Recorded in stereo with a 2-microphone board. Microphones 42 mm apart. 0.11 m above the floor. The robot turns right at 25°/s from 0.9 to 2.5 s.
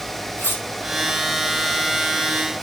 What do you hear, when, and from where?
0.4 s cutlery clinking: 70° left (ahead or behind), 2.5 m